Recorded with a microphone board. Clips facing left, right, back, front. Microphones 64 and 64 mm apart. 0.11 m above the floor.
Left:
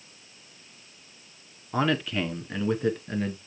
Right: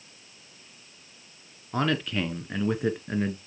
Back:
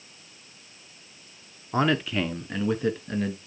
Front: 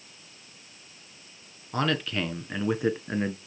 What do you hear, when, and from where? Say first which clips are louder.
1.7 s a man speaking: left 1 dB, back 3 dB; 165° left, 1.2 m; by 3.4 s 30° right, 1.3 m